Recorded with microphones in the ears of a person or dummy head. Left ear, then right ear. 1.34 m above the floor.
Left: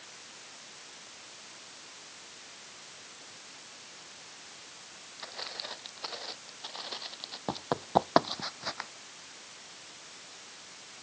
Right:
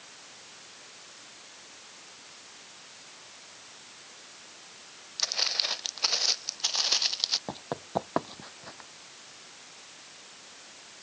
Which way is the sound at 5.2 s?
75° right (ahead or behind).